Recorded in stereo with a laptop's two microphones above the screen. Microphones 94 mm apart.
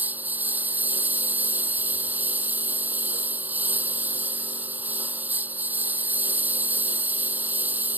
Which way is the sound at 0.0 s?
20° right (ahead or behind).